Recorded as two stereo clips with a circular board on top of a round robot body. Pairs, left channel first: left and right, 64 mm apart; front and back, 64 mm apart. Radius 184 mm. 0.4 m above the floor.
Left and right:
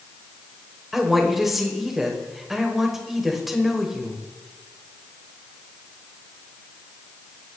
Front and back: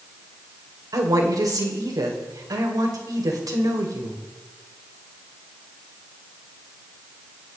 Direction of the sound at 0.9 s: 175° right.